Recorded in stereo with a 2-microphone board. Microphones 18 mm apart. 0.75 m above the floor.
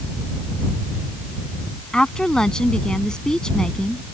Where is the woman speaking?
50° left (ahead or behind).